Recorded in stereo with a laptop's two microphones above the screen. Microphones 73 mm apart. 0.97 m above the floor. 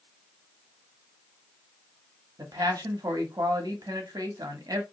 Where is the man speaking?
60° right (ahead or behind), 0.8 m.